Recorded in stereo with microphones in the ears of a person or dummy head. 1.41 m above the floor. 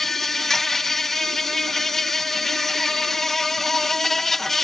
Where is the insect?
Centre (ahead or behind).